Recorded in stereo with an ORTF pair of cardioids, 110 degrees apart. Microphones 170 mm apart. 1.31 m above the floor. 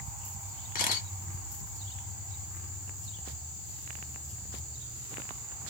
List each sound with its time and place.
0.8 s a camera shutter: 60° left, 1.2 m